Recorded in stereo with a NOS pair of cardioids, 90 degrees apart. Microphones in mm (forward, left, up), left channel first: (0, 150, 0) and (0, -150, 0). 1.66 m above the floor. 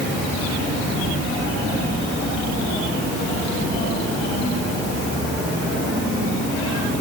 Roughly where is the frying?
No frying in this recording.